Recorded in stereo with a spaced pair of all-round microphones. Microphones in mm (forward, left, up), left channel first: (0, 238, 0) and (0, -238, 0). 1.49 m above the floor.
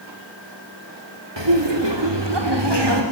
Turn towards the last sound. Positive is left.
turn(degrees=-55)  # may be behind; listen again after turning